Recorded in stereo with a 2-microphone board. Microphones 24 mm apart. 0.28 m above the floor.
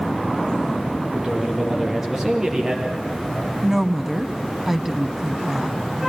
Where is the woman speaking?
15° right (ahead or behind), 1.7 m.